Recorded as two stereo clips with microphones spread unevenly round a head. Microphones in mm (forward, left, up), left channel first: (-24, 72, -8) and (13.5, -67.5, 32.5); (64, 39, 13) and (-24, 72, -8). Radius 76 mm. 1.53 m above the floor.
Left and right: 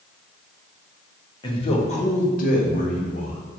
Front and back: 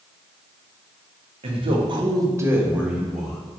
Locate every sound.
1.4 s a man speaking: 160° left, 0.9 m; by 3.4 s 65° left, 1.2 m